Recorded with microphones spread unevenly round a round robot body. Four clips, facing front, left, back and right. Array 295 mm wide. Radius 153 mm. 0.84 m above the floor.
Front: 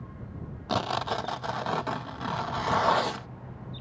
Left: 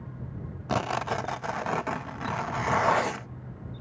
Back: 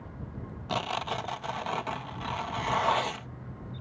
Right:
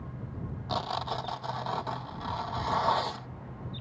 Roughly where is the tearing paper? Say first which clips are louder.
Left 4 dB, front 3 dB; ahead left.